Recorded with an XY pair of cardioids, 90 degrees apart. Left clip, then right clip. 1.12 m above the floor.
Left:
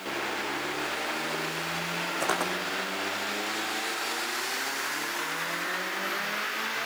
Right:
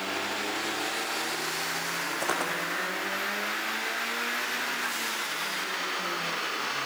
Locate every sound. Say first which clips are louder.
2.2 s footsteps: left 1 dB; 10° left, 4.5 m